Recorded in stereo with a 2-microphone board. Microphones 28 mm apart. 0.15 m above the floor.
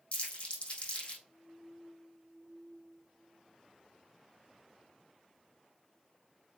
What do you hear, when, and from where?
0.1 s crumpling: 45° left (ahead or behind), 3.5 m